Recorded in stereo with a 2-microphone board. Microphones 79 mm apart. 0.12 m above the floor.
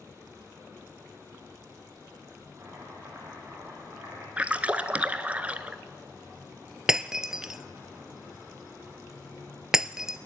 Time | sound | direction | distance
2.6 | chopping | 30° right (ahead or behind) | 7.5 m
4.4 | a splash | 20° right (ahead or behind) | 0.8 m
6.9 | breaking glass | 10° right (ahead or behind) | 0.5 m